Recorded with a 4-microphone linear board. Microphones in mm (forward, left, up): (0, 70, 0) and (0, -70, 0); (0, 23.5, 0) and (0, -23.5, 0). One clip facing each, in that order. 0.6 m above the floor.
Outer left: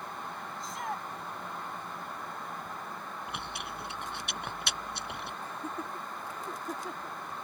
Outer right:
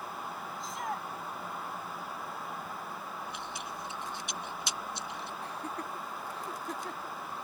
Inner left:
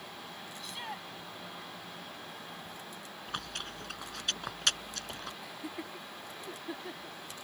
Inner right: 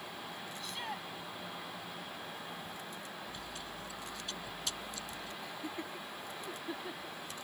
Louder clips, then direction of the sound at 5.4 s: Outer left 1 dB, even; 5° left (ahead or behind).